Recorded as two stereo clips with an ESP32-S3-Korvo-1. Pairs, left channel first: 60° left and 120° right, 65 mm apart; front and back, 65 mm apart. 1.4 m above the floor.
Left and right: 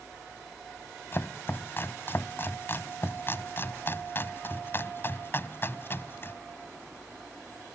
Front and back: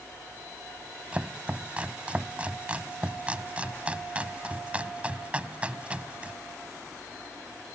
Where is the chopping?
110° left.